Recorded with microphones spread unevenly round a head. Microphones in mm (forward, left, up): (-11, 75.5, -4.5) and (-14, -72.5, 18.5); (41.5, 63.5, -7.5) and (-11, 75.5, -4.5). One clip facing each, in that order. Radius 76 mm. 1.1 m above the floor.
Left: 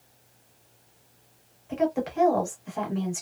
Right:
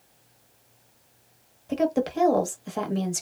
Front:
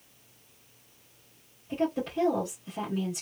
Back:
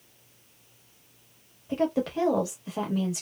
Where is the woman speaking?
140° right, 1.1 m.